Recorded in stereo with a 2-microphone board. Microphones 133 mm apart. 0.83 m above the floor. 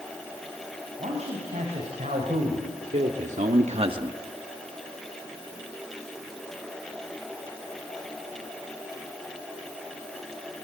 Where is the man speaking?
60° right (ahead or behind), 5 m; by 4.2 s 25° right (ahead or behind), 1.1 m.